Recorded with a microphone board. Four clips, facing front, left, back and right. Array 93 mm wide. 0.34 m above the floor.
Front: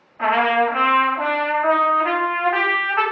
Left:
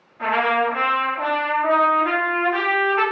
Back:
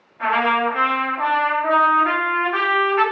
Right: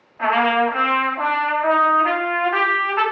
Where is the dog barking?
No dog barking in this recording.